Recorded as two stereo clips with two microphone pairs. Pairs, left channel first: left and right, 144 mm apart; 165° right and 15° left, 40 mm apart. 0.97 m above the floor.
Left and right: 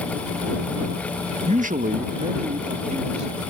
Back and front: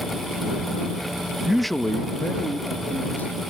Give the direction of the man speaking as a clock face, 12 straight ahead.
2 o'clock.